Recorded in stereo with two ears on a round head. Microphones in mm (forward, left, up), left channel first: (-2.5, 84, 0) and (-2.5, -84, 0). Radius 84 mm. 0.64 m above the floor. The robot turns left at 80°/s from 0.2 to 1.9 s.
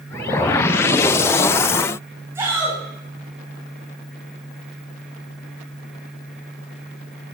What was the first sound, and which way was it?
A shout, 15° right (ahead or behind).